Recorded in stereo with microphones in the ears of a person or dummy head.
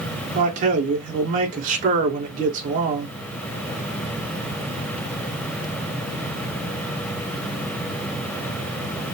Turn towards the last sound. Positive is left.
turn(degrees=-40)  # may be behind; listen again after turning